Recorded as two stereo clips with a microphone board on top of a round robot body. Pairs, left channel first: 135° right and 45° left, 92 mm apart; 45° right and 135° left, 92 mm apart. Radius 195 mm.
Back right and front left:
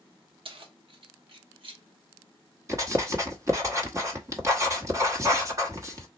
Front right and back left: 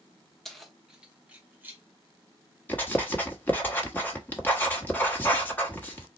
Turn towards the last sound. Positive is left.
turn(degrees=15)